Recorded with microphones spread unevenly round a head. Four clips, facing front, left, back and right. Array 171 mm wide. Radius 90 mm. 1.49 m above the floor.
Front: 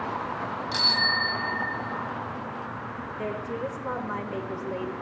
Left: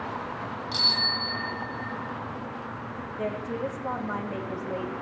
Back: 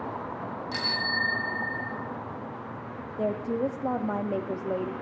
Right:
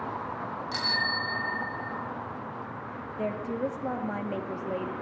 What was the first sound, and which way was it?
A bicycle bell, 85° right.